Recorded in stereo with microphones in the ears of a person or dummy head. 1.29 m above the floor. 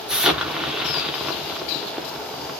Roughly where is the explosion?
Centre.